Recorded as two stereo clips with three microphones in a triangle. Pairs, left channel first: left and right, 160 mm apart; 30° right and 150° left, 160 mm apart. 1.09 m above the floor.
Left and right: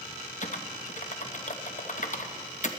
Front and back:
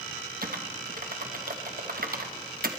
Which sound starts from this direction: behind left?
Typing on a keyboard, at 0.4 s.